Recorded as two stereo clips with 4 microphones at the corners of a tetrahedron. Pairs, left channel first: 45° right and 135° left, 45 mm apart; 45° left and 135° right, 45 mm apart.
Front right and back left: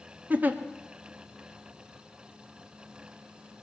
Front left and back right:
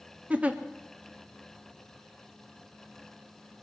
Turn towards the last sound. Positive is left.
turn(degrees=175)